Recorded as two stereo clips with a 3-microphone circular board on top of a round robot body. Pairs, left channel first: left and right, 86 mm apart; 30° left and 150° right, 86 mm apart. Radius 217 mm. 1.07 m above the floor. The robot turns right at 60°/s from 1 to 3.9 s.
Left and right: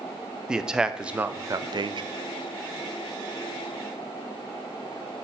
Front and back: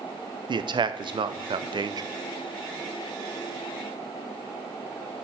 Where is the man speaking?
170° right, 0.6 m; by 2.1 s 105° right, 0.6 m.